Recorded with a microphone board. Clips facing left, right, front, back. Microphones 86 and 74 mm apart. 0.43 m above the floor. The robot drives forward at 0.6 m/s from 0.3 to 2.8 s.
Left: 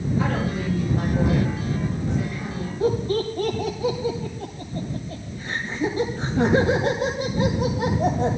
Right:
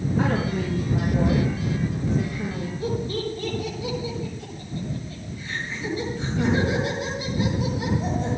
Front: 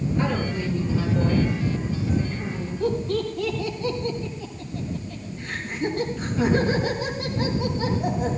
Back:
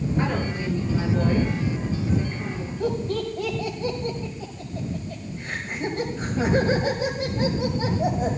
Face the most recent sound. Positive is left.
turn(degrees=130)